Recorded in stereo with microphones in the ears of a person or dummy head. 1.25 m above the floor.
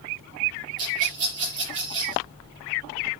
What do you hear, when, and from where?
0.8 s a rattle: 35° right (ahead or behind), 6 m